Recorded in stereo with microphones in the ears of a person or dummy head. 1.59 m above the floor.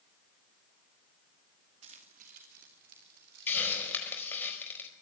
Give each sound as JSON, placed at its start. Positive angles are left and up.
{"t": 1.8, "sound": "keys jangling", "side_deg": -40, "distance_m": 2.0}
{"t": 3.5, "sound": "a hiss", "side_deg": 15, "distance_m": 4.5}